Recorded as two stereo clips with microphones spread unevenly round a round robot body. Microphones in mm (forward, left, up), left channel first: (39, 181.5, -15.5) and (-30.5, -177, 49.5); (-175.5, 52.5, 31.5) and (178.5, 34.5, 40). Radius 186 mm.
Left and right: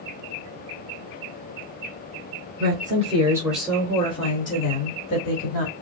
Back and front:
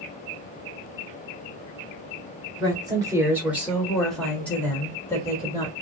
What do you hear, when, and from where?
2.6 s a woman speaking: 65° right, 1.4 m; by 5.7 s 100° left, 2 m